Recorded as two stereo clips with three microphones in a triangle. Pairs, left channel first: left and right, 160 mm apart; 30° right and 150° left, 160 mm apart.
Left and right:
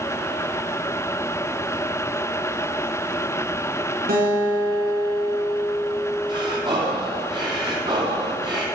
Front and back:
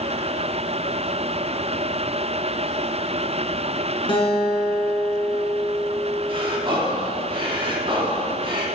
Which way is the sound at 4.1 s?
85° right.